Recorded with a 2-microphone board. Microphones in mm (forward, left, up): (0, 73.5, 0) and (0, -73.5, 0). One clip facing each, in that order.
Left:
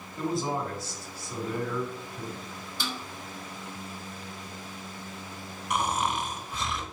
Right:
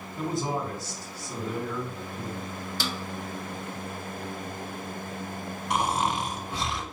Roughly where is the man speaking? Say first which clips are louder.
Even; right.